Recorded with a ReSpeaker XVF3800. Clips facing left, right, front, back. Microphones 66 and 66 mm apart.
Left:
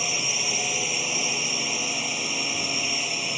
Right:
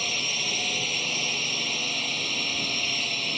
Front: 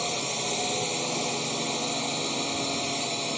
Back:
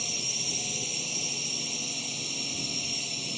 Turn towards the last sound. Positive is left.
turn(degrees=15)